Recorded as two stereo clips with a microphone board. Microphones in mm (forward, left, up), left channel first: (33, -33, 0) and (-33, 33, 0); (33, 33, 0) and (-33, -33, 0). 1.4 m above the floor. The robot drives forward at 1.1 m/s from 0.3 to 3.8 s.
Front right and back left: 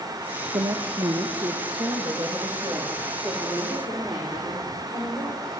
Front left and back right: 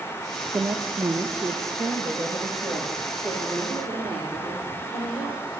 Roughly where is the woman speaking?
Behind.